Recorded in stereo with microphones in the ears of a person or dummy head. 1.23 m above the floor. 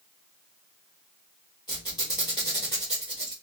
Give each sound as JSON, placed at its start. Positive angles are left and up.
{"t": 1.7, "sound": "a squeak", "side_deg": 15, "distance_m": 1.0}